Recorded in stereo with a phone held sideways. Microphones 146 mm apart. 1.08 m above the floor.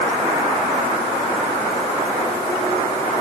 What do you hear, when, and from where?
Only background noise.